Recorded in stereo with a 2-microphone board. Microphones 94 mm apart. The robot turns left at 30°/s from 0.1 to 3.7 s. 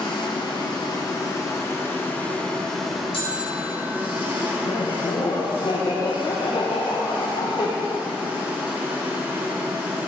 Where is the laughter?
60° left (ahead or behind), 0.8 m.